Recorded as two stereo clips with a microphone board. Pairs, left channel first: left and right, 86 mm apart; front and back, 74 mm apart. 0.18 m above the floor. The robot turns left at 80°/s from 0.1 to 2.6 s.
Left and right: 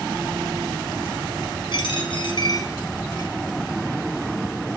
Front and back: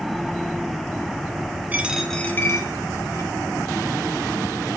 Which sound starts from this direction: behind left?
A dropped coin, at 1.7 s.